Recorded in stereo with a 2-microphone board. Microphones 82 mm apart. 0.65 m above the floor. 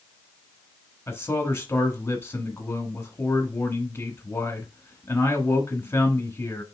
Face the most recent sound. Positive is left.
turn(degrees=30)  # may be behind; listen again after turning